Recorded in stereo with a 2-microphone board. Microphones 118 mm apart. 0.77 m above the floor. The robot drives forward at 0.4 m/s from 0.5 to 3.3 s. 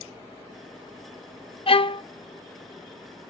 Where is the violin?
50° left (ahead or behind), 0.5 m; by 2.0 s 45° left (ahead or behind), 0.6 m.